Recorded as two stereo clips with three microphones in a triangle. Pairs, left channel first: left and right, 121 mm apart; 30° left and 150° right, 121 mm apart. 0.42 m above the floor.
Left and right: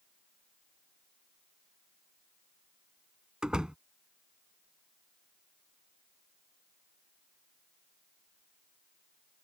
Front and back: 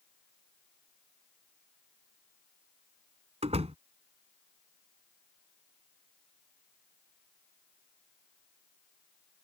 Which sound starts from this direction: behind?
A door slam, at 3.4 s.